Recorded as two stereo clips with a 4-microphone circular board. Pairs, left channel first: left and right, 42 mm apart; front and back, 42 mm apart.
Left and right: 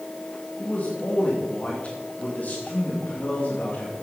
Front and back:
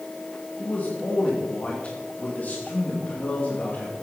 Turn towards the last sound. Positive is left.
turn(degrees=45)